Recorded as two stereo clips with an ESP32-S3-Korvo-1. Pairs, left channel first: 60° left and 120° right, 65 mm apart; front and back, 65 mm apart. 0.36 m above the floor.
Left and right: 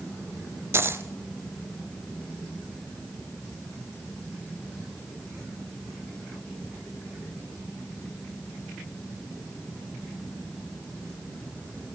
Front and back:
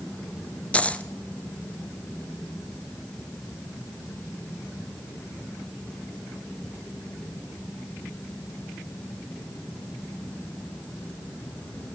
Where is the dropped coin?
70° right, 0.9 m.